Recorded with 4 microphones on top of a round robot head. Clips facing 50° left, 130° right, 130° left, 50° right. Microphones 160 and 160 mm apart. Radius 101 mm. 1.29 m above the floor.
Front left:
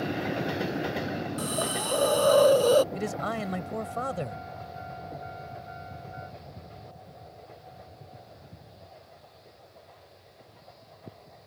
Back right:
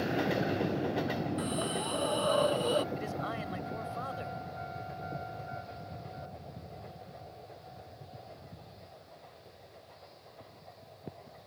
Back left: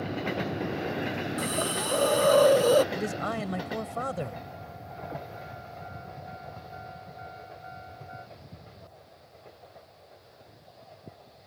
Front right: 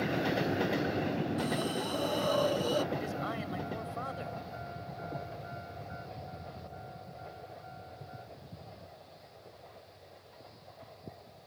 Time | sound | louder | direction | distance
1.4 | a hiss | front left 3 dB, back left 2 dB | 95° left | ?
2.9 | a man speaking | front left 5 dB, back left 5 dB | 90° left | ?